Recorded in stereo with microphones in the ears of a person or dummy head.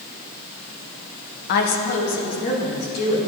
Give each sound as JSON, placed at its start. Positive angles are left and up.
{"t": 1.5, "sound": "a woman speaking", "side_deg": 45, "distance_m": 0.6}